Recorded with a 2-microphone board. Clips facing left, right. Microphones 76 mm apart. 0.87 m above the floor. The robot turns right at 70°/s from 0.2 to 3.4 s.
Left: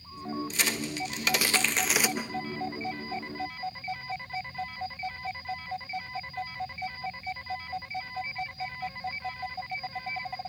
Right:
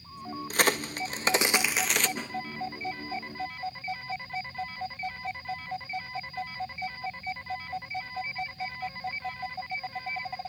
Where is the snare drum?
5° left (ahead or behind), 2.5 m; by 2.3 s 20° left (ahead or behind), 2.5 m.